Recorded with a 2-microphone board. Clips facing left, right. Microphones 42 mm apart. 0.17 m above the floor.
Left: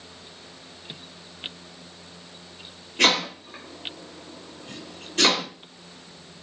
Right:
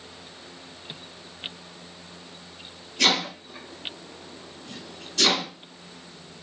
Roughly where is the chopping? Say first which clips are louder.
Left 2 dB; left.